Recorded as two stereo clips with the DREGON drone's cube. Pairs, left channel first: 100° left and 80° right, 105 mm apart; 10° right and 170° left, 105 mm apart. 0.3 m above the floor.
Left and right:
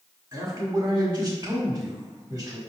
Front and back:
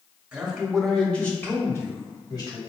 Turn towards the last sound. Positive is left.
turn(degrees=-40)